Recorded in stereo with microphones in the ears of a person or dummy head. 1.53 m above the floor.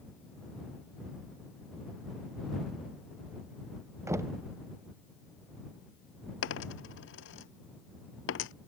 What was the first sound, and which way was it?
Knocking, 10° right (ahead or behind).